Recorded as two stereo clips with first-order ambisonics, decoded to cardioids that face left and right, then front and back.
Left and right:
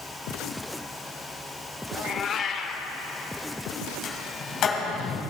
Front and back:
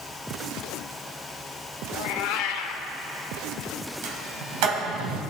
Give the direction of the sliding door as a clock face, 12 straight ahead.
7 o'clock.